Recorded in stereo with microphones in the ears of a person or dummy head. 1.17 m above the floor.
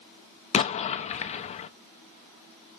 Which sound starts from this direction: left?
An explosion, at 0.5 s.